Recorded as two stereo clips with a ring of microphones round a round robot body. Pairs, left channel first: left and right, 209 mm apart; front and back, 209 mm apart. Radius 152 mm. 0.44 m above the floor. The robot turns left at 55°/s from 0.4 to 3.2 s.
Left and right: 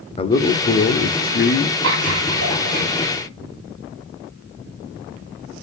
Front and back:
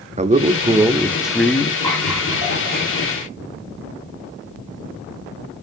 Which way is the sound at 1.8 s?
80° right.